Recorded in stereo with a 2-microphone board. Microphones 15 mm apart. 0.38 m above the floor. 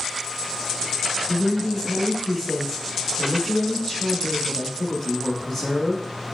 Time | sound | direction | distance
1.3 | a woman speaking | 15° left (ahead or behind) | 0.9 m